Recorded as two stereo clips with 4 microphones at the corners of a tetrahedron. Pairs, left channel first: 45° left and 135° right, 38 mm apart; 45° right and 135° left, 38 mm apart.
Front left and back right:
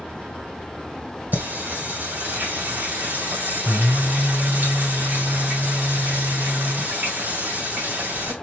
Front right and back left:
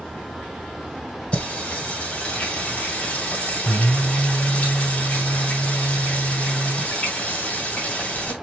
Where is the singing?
100° right, 2.5 m.